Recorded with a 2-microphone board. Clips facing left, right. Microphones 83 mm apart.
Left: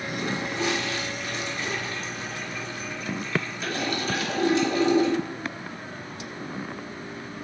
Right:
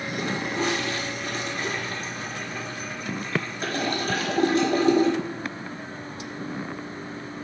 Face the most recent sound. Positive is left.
turn(degrees=-45)  # may be behind; listen again after turning